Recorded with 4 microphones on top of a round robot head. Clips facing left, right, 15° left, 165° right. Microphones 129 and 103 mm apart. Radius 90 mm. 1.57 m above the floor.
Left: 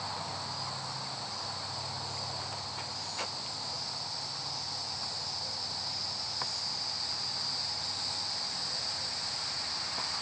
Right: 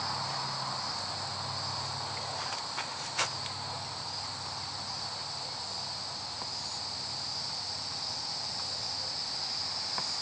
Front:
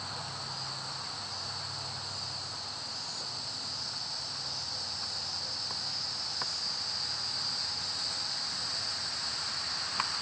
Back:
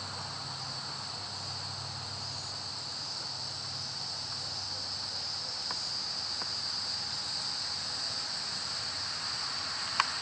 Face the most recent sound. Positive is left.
No sound to turn to.